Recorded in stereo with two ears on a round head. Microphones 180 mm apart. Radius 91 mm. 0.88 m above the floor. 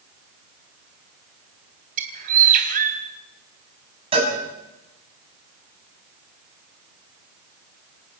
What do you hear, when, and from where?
2.0 s a bird: 45° right (ahead or behind), 3.5 m
4.1 s a cowbell: 30° right (ahead or behind), 7.5 m